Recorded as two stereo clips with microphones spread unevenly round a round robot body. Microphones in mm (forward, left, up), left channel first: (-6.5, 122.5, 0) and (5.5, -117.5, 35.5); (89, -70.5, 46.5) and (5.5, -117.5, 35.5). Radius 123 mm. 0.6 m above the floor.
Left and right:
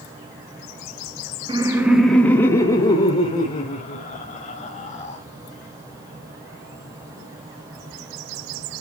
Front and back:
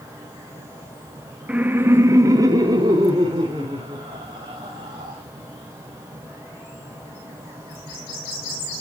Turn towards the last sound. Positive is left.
turn(degrees=155)